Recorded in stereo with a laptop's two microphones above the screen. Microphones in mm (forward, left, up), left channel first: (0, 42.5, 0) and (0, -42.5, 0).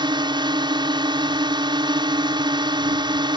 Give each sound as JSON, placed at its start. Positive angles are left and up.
{"t": 0.0, "sound": "a drone", "side_deg": -65}